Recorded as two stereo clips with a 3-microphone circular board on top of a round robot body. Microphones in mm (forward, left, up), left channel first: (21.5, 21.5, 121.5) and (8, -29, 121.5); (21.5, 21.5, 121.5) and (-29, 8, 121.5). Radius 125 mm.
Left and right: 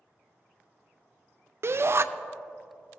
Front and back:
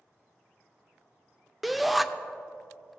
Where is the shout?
75° right, 0.5 m.